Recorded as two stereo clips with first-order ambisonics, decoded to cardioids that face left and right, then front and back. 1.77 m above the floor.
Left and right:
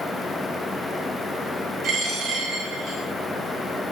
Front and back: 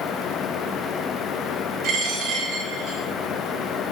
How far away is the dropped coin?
About 2.5 m.